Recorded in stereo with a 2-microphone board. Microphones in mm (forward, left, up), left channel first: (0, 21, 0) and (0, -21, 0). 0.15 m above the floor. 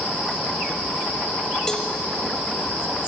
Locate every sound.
1.7 s a cowbell: 15° left (ahead or behind), 1.2 m